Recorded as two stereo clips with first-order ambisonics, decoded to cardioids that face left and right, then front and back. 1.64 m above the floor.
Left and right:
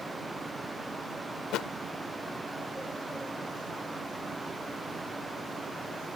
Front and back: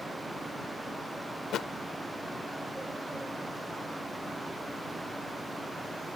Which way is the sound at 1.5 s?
50° left.